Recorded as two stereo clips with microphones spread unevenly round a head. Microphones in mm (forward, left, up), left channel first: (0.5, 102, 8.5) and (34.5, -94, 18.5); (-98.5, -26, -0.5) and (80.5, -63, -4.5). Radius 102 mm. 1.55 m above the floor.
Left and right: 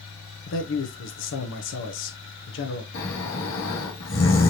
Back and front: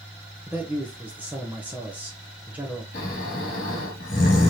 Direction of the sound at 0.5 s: 70° left.